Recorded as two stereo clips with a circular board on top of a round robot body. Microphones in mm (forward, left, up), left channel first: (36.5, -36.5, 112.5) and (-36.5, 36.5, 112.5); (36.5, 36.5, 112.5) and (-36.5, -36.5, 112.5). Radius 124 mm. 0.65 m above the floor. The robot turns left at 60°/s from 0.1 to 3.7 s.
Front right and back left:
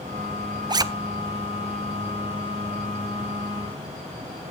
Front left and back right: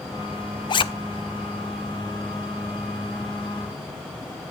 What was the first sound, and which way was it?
A zipper, 90° left.